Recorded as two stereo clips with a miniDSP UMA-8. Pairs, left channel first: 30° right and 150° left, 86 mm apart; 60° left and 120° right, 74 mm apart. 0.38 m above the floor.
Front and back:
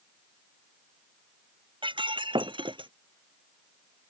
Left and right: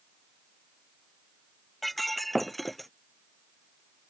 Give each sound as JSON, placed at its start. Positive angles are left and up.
{"t": 1.8, "sound": "breaking glass", "azimuth_deg": 150}